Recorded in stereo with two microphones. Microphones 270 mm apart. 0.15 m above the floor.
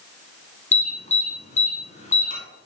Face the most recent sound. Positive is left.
turn(degrees=25)  # may be behind; listen again after turning